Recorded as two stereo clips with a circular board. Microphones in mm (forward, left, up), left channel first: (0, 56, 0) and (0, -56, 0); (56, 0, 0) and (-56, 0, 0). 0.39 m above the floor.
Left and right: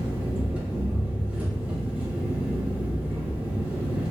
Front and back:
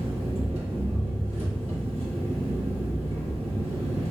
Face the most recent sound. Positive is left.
turn(degrees=-165)